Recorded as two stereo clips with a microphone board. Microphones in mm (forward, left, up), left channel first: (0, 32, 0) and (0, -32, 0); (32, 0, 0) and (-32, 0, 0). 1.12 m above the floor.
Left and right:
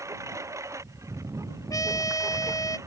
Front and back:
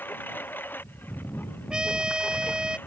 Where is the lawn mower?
55° right.